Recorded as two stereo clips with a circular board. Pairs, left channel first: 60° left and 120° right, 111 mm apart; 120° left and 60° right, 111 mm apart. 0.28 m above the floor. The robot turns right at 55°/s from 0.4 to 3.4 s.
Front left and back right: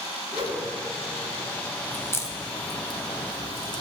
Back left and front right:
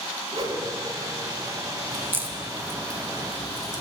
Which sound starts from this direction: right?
A whoosh, at 0.3 s.